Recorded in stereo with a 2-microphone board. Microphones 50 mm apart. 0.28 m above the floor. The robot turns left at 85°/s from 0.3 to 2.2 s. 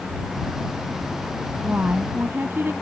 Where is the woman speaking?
25° right; by 2.7 s 75° right.